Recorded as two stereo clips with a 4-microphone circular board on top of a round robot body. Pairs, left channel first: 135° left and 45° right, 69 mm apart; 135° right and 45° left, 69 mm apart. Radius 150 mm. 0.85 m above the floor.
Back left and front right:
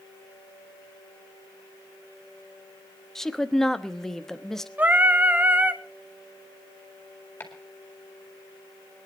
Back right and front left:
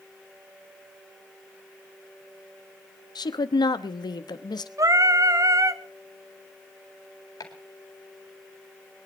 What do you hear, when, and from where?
3.1 s a woman speaking: 140° right, 1.2 m
4.8 s singing: 20° left, 1.1 m
7.4 s chopping: 160° right, 4.5 m